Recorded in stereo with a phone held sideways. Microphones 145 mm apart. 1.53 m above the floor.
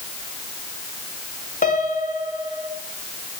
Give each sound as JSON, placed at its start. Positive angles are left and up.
{"t": 1.6, "sound": "a piano", "side_deg": 65, "distance_m": 2.5}